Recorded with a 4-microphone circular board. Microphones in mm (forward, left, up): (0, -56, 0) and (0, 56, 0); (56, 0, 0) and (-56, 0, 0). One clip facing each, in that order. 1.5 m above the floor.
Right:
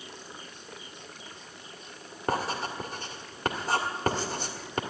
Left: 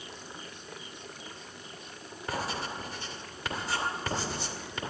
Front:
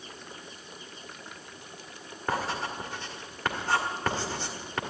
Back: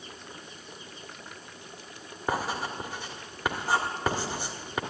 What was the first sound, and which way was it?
Writing, 105° right.